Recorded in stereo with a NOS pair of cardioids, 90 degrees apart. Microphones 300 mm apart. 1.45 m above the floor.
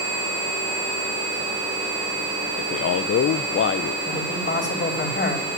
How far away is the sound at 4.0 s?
About 4 m.